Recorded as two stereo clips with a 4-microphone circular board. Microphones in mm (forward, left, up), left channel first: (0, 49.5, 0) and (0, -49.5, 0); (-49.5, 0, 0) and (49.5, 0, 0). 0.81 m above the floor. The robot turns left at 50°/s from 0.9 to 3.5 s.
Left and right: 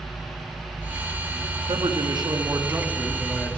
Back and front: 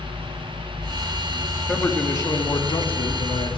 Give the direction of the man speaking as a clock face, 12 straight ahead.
3 o'clock.